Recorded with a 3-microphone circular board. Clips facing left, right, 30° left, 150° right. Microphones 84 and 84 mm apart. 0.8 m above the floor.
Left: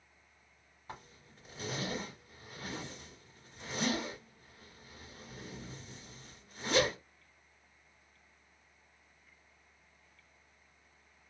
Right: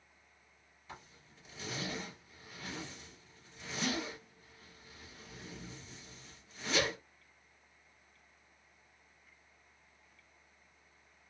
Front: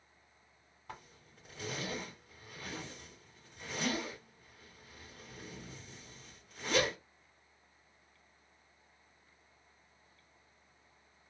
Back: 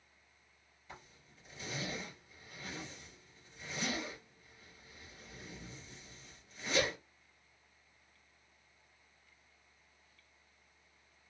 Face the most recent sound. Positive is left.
turn(degrees=50)